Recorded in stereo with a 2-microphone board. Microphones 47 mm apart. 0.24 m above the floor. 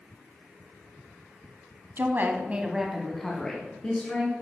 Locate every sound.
2.0 s a woman speaking: 50° right (ahead or behind), 1.5 m; by 4.3 s 30° left (ahead or behind), 3 m